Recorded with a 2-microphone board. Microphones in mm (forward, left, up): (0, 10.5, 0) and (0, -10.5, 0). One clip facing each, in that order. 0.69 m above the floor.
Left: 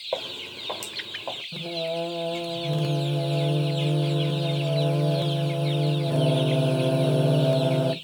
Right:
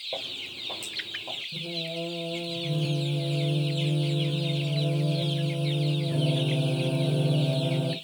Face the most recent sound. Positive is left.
turn(degrees=50)  # may be behind; listen again after turning